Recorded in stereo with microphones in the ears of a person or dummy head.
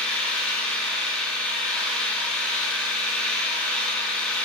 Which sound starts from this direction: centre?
An engine running, at 0.0 s.